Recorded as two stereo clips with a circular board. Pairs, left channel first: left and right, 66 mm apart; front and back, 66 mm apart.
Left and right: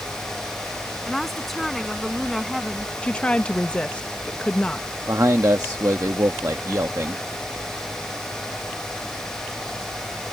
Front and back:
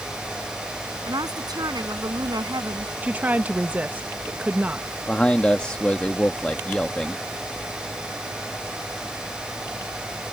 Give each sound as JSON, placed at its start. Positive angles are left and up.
{"t": 1.1, "sound": "a woman speaking", "azimuth_deg": 175}
{"t": 3.0, "sound": "a woman speaking", "azimuth_deg": 145}
{"t": 5.1, "sound": "a man speaking", "azimuth_deg": -70}